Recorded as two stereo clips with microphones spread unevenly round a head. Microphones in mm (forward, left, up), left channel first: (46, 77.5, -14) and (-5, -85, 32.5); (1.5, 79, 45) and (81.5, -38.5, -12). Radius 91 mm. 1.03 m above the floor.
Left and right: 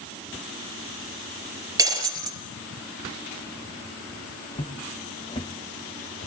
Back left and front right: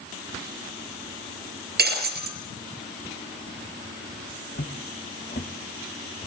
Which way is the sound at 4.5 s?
145° left.